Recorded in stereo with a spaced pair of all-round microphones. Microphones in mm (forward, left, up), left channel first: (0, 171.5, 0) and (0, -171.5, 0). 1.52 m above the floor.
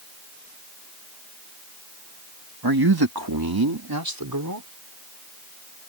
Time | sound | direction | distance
2.6 | a man speaking | 75° right (ahead or behind) | ?